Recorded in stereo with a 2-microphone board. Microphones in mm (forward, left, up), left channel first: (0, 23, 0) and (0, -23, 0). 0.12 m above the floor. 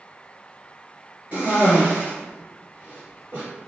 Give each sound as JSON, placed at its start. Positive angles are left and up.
{"t": 1.3, "sound": "a cough", "side_deg": -30, "distance_m": 1.8}